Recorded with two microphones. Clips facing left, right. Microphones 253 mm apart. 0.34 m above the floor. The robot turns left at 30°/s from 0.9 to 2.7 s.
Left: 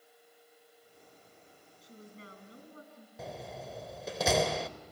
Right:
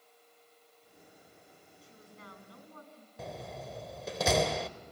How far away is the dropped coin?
I don't hear a dropped coin.